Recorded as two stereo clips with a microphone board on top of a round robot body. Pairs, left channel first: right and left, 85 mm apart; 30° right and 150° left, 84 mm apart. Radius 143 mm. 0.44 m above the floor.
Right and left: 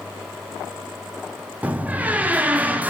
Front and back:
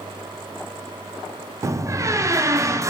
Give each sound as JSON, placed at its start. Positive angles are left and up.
{"t": 1.6, "sound": "a door slam", "azimuth_deg": 150, "distance_m": 0.5}